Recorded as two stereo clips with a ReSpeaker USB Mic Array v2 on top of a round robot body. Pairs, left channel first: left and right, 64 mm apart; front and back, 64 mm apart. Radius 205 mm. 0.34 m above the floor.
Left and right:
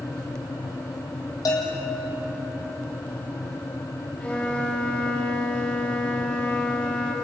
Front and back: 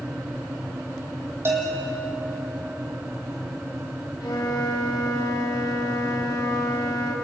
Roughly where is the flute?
Ahead.